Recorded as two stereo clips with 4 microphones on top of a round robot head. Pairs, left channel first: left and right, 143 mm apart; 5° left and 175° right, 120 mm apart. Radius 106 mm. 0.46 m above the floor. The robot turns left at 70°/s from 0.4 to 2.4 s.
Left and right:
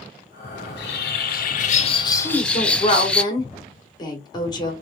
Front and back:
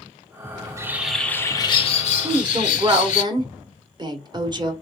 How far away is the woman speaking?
About 1.3 m.